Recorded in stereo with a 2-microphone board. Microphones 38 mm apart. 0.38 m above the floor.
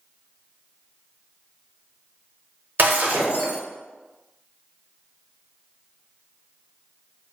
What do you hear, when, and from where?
2.8 s breaking glass: 50° right (ahead or behind), 0.7 m